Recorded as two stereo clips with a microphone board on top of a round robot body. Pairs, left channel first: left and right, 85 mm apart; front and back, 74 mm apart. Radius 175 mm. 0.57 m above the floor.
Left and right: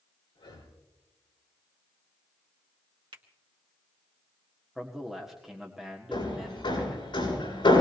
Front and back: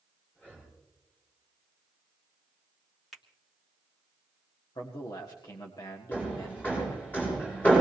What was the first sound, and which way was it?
Breathing, 70° left.